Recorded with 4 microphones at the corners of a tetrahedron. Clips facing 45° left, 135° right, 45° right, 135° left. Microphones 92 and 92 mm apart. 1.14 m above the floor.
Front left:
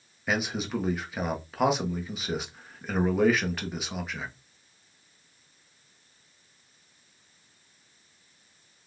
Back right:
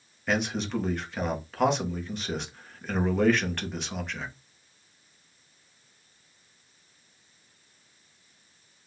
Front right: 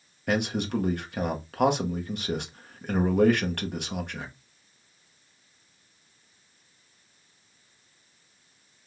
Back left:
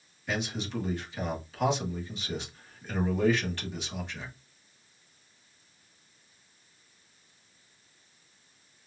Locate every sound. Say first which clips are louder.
0.3 s a man speaking: back right 1 dB, front right 7 dB; 40° right, 1.1 m